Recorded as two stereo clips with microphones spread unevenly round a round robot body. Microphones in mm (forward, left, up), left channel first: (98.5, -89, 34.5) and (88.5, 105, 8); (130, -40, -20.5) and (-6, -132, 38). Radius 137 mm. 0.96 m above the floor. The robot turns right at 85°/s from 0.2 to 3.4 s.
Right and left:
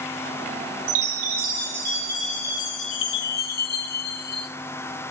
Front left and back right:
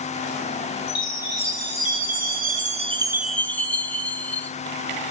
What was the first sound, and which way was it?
A chime, 90° left.